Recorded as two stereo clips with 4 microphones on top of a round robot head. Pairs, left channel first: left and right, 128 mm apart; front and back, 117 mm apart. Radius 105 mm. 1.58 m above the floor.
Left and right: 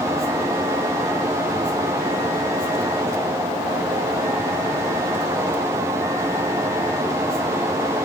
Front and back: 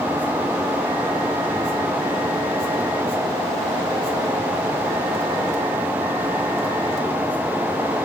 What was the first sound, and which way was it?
Only background noise.